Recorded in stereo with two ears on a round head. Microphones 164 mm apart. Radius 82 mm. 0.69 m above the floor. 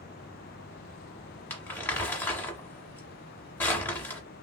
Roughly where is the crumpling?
Centre.